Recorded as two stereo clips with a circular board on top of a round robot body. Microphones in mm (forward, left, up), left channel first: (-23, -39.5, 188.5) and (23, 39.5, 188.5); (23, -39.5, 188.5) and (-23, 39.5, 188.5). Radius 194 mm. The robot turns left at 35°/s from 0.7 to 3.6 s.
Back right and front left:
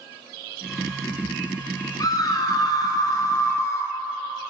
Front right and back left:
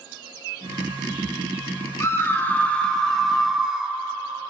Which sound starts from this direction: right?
A scream, at 2.0 s.